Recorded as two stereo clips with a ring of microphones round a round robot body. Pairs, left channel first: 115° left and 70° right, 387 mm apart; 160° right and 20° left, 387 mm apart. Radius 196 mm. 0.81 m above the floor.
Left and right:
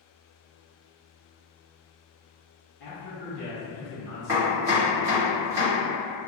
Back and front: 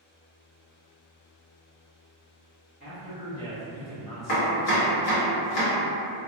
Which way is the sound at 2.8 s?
130° left.